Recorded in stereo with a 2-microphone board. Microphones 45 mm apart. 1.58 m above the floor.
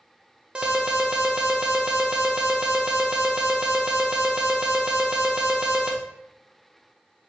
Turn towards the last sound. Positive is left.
turn(degrees=-20)  # may be behind; listen again after turning